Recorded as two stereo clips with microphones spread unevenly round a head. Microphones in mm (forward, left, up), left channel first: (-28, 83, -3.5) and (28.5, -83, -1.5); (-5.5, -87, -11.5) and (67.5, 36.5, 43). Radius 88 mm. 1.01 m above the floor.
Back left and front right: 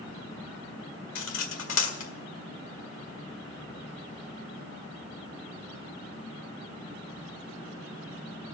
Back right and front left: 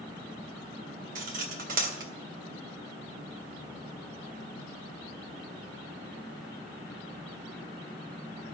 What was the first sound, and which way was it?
Cutlery clinking, 95° left.